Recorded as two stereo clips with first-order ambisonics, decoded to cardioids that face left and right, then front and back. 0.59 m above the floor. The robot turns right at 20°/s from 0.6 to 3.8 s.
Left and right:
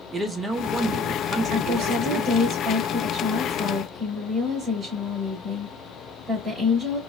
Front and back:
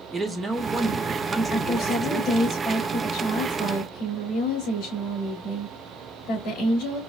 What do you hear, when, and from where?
0.1 s a man speaking: 140° right, 0.6 m; by 2.5 s 100° right, 0.6 m
1.5 s a woman speaking: 65° right, 2 m; by 7.0 s 20° right, 2 m